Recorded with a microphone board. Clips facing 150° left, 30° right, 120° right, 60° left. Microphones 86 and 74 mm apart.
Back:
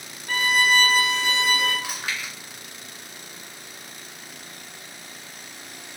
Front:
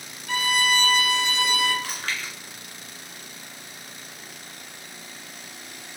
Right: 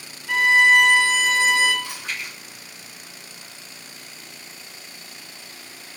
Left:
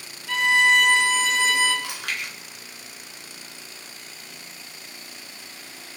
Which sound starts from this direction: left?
Chewing, at 1.8 s.